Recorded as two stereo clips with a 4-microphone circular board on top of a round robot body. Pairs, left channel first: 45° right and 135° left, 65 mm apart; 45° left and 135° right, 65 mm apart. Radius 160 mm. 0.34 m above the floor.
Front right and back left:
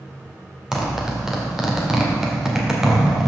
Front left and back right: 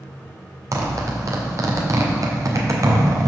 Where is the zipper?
145° right, 2 m.